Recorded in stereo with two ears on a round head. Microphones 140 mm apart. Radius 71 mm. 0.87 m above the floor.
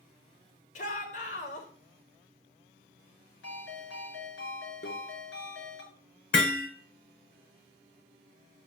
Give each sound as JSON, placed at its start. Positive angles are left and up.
{"t": 0.8, "sound": "a shout", "side_deg": 50, "distance_m": 3.5}
{"t": 3.4, "sound": "a ringtone", "side_deg": 85, "distance_m": 6.0}
{"t": 4.8, "sound": "a microwave", "side_deg": 70, "distance_m": 2.0}
{"t": 6.3, "sound": "hammering", "side_deg": 80, "distance_m": 3.5}